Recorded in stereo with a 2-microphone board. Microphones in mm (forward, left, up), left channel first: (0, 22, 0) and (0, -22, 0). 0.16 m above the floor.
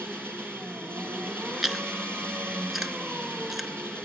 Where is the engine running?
55° right (ahead or behind), 3 m.